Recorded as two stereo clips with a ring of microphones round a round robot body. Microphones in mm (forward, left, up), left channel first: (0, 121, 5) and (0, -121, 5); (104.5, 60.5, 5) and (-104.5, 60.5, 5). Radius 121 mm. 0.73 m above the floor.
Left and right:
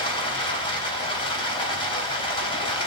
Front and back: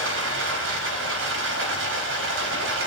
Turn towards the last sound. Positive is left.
turn(degrees=160)